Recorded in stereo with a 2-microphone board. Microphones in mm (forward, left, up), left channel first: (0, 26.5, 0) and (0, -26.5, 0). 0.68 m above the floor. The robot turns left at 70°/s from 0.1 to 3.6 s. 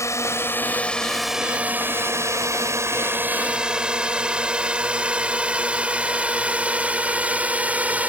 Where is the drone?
65° left (ahead or behind); by 8.1 s 30° right (ahead or behind).